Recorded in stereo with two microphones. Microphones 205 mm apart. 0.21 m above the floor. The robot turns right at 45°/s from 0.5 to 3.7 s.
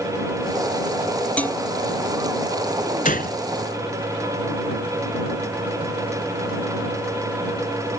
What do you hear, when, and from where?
1.4 s dishes clattering: 5° left (ahead or behind); by 1.6 s 15° left (ahead or behind)
3.0 s a gunshot: 45° left (ahead or behind); by 3.4 s 55° left (ahead or behind)